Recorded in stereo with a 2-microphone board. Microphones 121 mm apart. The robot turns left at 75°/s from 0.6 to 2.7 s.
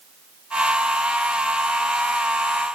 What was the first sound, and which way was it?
Only background noise.